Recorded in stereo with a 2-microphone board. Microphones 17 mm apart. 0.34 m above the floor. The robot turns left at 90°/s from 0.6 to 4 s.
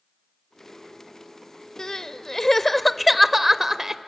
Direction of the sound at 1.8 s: 105° left.